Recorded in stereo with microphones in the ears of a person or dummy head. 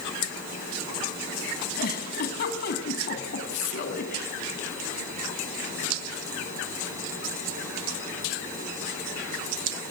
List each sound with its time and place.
1.8 s a giggle: 55° left (ahead or behind), 3 m